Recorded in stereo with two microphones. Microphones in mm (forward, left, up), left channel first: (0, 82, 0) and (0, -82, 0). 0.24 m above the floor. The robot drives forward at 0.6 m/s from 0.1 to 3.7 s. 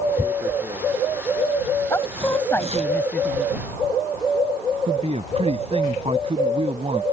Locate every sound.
0.2 s tearing paper: 25° right (ahead or behind); by 2.9 s 40° right (ahead or behind)
1.9 s a woman speaking: 15° left (ahead or behind); by 3.7 s 10° left (ahead or behind)
4.9 s a man speaking: 40° right (ahead or behind)